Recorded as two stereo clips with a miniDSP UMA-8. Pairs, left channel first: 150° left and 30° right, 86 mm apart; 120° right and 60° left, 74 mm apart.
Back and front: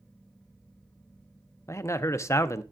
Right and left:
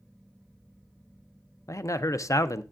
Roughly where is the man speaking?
Behind.